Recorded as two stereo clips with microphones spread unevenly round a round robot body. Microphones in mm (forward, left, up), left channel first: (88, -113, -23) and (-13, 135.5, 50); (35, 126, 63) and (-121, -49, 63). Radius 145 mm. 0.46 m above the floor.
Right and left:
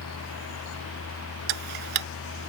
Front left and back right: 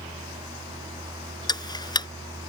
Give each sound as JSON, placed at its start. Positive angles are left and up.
{"t": 1.5, "sound": "ticking", "azimuth_deg": 125}